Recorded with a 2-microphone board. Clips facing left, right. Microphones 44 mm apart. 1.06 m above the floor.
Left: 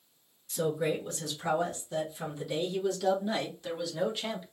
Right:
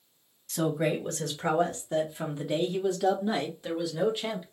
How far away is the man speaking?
About 1.9 m.